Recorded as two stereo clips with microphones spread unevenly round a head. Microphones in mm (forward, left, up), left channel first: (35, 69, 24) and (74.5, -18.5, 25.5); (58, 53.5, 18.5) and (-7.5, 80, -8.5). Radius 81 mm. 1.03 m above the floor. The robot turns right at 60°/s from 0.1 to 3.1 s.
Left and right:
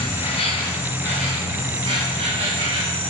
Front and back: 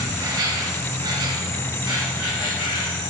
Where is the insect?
130° left, 3.5 m; by 3.1 s 50° right, 3.5 m.